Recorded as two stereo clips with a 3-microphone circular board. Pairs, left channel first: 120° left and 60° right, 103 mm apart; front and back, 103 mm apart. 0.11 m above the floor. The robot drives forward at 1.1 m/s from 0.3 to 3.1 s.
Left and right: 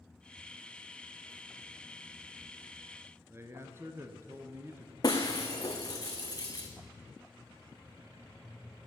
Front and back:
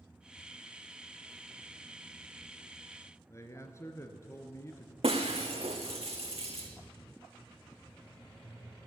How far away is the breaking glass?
About 1.6 m.